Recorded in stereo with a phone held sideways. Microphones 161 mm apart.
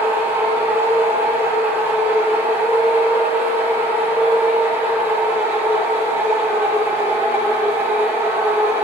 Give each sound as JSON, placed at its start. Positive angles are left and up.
{"t": 0.0, "sound": "a machine running", "side_deg": -15, "distance_m": 1.1}